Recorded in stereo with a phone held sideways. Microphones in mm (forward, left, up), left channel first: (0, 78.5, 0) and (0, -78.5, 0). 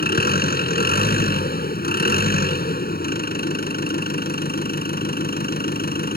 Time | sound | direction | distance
0.0 | an engine running | 75° left (ahead or behind) | ?